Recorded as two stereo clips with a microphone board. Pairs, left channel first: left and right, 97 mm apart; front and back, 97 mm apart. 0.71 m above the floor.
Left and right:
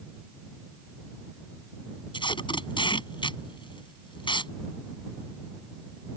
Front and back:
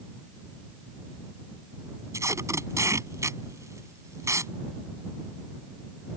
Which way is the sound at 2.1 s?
120° left.